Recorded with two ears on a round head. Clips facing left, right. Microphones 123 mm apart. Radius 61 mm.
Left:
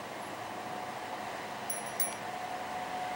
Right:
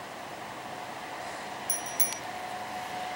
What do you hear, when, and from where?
1.7 s a bicycle bell: 25° right (ahead or behind)